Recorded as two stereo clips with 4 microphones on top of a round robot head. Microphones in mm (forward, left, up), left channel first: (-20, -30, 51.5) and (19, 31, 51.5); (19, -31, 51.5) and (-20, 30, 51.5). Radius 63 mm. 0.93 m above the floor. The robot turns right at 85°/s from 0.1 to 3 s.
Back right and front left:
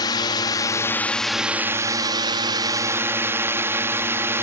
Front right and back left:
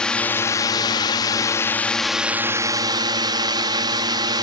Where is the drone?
135° right; by 4.4 s 110° left.